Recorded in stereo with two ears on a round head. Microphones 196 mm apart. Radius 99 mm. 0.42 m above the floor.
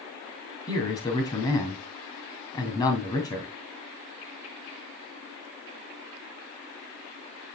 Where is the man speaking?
15° left (ahead or behind), 2.5 m.